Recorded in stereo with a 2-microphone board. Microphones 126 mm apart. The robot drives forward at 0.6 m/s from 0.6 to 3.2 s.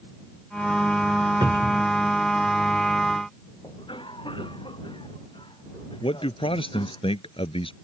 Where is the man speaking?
45° left (ahead or behind).